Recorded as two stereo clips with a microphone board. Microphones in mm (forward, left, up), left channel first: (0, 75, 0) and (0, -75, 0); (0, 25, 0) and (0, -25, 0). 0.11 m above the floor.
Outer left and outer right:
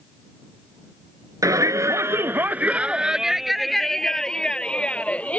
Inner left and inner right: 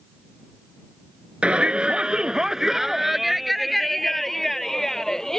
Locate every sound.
1.4 s a shout: 20° right (ahead or behind); by 5.4 s 10° left (ahead or behind)